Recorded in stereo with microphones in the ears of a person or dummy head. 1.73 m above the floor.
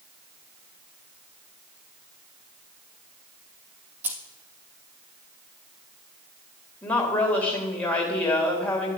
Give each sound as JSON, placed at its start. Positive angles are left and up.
{"t": 4.0, "sound": "keys jangling", "side_deg": -10, "distance_m": 1.4}
{"t": 6.8, "sound": "a woman speaking", "side_deg": 10, "distance_m": 2.5}